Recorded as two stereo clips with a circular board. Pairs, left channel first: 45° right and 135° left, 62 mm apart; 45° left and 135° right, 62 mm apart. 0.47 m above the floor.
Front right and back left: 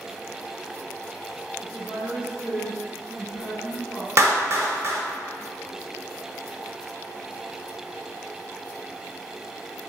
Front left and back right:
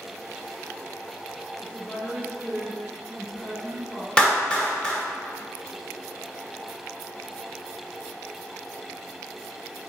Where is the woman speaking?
70° left, 1.0 m.